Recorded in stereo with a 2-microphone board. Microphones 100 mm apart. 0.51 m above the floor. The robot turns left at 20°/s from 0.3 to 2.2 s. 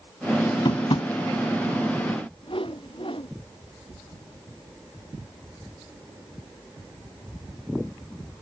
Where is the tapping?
55° left (ahead or behind); by 1.1 s 60° left (ahead or behind).